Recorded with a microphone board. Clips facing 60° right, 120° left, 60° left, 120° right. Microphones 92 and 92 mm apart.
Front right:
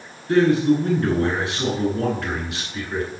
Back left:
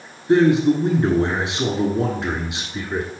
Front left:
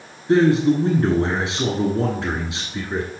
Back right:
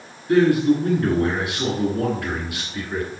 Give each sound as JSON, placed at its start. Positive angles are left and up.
{"t": 0.3, "sound": "a man speaking", "azimuth_deg": 75, "distance_m": 1.1}